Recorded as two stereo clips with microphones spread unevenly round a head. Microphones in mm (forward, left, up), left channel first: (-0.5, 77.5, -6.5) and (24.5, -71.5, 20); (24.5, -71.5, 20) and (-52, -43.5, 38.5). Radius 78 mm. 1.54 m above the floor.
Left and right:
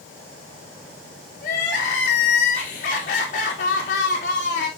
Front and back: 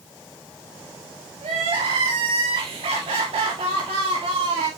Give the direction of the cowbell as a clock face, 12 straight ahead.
I don't hear a cowbell.